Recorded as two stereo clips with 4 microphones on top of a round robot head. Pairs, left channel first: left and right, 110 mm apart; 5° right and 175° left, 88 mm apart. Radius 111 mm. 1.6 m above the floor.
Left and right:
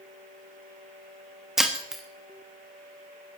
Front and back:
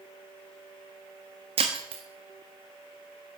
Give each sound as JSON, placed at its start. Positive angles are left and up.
{"t": 1.6, "sound": "breaking glass", "azimuth_deg": -175, "distance_m": 1.2}